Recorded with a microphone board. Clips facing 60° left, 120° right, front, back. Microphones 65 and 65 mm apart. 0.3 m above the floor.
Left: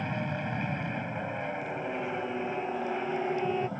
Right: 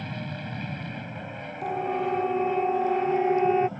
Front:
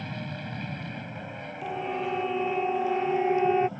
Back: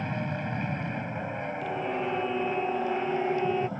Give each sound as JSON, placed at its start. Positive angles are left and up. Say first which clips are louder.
{"t": 0.0, "sound": "an aircraft", "louder": "left 3 dB, back 5 dB", "azimuth_deg": 125}
{"t": 1.6, "sound": "a siren", "louder": "right 6 dB, front 2 dB", "azimuth_deg": -85}